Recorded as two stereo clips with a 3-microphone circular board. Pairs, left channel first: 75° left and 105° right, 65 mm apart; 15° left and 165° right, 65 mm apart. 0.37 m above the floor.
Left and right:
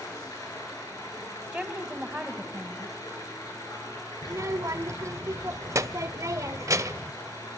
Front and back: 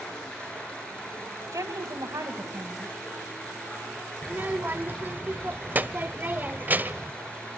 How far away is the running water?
About 6 m.